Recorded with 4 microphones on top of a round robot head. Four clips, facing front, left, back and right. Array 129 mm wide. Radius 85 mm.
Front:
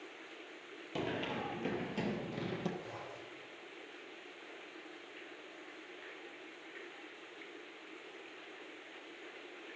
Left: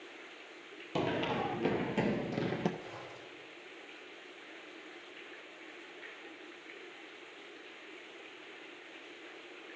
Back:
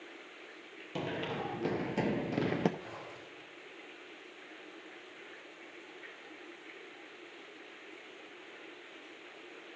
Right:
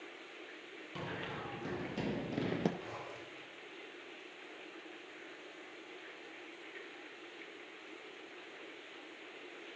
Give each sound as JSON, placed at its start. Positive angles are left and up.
{"t": 0.9, "sound": "running footsteps", "azimuth_deg": 90, "distance_m": 0.9}
{"t": 2.8, "sound": "a zipper", "azimuth_deg": -125, "distance_m": 4.5}